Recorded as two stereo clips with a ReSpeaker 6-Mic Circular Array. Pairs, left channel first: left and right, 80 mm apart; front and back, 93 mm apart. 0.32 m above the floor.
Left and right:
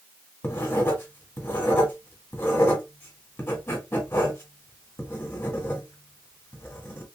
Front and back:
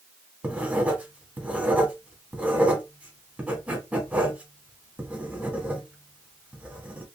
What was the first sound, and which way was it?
Writing, 120° left.